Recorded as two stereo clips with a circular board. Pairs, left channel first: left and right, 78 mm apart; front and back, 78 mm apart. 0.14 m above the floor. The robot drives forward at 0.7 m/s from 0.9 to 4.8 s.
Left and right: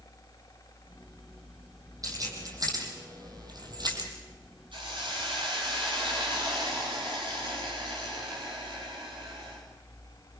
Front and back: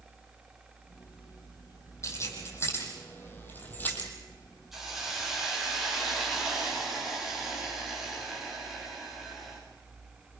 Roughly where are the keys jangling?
Ahead right.